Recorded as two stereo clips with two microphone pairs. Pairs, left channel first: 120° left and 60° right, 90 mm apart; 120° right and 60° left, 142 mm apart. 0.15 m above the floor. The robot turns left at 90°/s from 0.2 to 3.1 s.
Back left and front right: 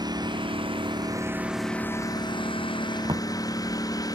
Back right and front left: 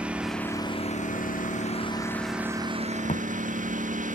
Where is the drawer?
85° right; by 3.3 s 95° right.